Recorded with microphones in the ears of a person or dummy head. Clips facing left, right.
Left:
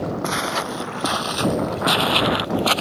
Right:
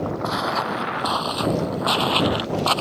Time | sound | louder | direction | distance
0.2 | footsteps | even | 25° left (ahead or behind) | ?